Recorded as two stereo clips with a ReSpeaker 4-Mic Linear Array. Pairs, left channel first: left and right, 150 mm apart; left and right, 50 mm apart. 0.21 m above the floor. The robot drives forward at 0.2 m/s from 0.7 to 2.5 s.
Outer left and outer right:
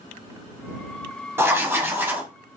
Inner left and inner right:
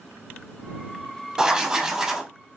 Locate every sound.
1.4 s writing: 15° right (ahead or behind), 0.5 m